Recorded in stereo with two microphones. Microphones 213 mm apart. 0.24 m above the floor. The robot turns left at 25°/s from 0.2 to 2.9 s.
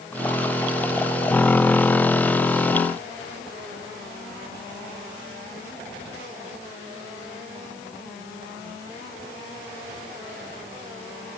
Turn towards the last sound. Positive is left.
No sound to turn to.